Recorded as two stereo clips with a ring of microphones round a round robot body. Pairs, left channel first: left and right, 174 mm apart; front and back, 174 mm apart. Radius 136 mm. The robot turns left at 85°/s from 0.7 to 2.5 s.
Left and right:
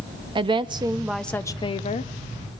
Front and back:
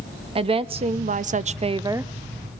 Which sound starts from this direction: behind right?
A woman speaking, at 0.3 s.